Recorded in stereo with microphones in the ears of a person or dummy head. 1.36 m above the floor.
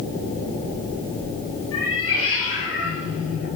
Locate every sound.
1.7 s a cat meowing: 65° left (ahead or behind), 7.5 m